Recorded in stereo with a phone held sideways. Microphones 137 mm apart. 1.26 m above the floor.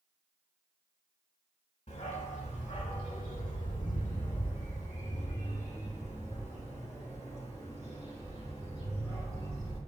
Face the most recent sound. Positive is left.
turn(degrees=45)  # may be behind; listen again after turning